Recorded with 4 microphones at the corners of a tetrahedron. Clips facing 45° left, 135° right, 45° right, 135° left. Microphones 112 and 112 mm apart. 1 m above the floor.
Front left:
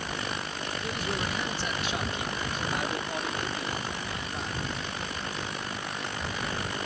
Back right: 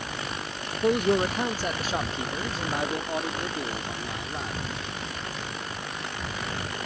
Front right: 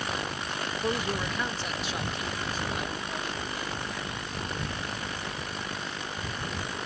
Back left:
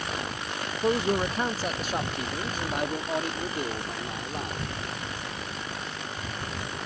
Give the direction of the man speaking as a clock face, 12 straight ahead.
5 o'clock.